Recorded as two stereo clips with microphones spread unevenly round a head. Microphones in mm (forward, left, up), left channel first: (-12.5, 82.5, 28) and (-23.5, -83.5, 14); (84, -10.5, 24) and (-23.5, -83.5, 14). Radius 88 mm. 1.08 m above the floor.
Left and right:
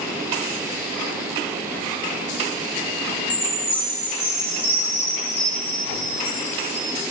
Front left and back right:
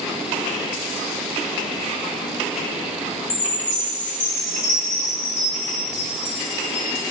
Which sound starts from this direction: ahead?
A chime, at 3.3 s.